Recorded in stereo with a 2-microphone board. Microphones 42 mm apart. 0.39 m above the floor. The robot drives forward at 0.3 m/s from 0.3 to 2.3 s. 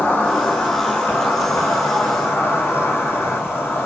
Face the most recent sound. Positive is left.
turn(degrees=80)